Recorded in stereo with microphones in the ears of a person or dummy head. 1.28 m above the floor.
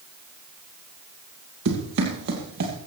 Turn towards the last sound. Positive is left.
turn(degrees=-45)  # may be behind; listen again after turning